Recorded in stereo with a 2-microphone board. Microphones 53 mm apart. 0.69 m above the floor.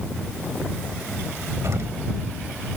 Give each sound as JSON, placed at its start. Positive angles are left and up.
{"t": 1.6, "sound": "an explosion", "side_deg": -75}